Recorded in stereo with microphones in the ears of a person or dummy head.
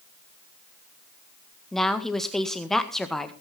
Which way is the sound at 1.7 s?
5° left (ahead or behind).